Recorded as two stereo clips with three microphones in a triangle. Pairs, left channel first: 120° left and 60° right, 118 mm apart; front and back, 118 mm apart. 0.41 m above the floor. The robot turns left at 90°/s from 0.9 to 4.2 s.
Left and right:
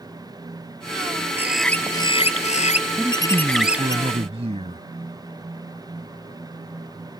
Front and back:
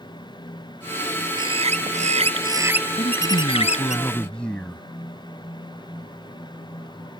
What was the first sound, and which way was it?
A bird, 130° right.